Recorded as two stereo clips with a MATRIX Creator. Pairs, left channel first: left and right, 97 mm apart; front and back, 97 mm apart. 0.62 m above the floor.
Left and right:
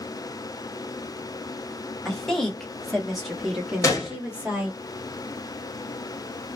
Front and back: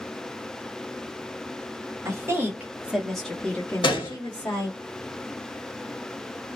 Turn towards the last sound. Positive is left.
turn(degrees=35)